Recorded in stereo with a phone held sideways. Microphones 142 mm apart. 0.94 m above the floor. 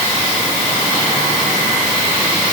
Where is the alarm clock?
No alarm clock in this recording.